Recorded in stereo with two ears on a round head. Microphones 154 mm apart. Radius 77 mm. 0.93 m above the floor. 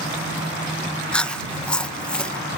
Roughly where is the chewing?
Centre.